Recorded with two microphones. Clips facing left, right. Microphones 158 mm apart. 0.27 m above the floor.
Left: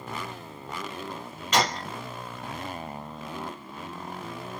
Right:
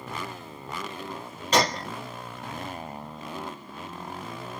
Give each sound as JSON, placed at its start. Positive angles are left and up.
{"t": 1.5, "sound": "a gunshot", "side_deg": -35, "distance_m": 3.5}